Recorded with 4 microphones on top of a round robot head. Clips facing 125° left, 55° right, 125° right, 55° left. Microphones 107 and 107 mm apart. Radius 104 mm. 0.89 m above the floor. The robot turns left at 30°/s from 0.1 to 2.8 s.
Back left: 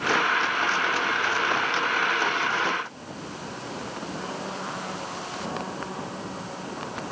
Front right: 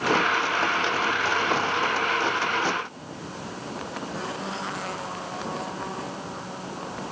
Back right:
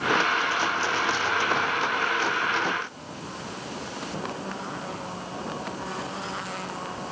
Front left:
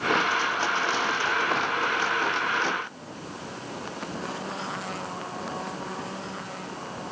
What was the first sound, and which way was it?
Only background noise.